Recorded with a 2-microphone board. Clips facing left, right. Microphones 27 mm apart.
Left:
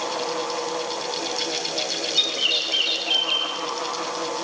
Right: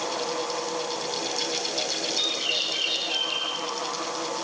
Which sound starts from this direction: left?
A bird, at 2.1 s.